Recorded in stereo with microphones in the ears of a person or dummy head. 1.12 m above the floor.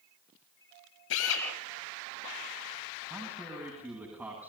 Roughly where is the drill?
Left.